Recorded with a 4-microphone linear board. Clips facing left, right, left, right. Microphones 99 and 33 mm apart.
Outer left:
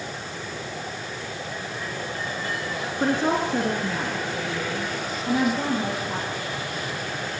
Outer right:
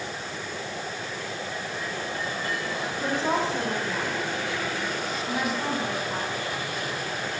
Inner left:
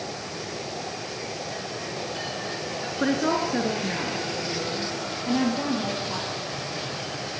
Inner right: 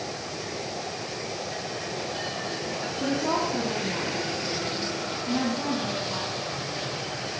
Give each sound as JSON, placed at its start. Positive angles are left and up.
{"t": 3.0, "sound": "a woman speaking", "side_deg": 60, "distance_m": 4.0}